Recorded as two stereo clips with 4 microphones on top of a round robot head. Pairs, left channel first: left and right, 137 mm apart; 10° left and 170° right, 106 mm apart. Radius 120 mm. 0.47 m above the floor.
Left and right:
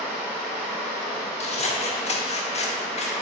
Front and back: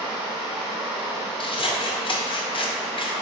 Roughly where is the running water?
Behind right.